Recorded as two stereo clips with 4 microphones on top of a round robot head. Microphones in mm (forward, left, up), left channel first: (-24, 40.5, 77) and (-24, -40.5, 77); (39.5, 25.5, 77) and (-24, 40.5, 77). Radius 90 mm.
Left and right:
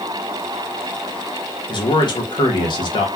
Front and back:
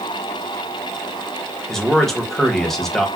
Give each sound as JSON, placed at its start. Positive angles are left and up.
{"t": 1.7, "sound": "a man speaking", "azimuth_deg": 75, "distance_m": 0.9}